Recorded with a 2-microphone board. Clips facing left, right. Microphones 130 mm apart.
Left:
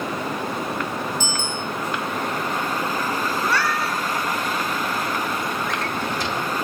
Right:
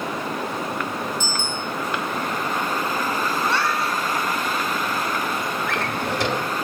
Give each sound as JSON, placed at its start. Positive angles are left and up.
{"t": 1.2, "sound": "a bicycle bell", "side_deg": -20, "distance_m": 7.5}
{"t": 3.4, "sound": "a cat meowing", "side_deg": -25, "distance_m": 2.0}
{"t": 5.7, "sound": "a drawer", "side_deg": -65, "distance_m": 1.6}